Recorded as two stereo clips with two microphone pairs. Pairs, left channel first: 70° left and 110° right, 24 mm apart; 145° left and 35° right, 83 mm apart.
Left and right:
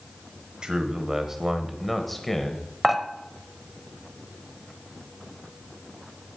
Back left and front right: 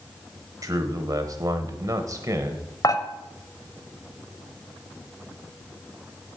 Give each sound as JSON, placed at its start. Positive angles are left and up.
{"t": 0.6, "sound": "a man speaking", "azimuth_deg": -65, "distance_m": 1.3}
{"t": 2.8, "sound": "dishes clattering", "azimuth_deg": 165, "distance_m": 0.8}